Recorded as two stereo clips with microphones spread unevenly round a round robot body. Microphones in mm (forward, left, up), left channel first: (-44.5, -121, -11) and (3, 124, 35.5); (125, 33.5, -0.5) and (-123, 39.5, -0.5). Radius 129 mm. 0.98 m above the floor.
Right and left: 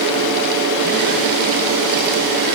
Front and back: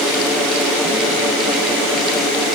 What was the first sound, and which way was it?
Only background noise.